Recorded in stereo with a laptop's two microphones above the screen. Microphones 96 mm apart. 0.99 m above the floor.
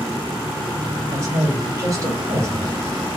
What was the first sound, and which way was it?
A woman speaking, 40° right (ahead or behind).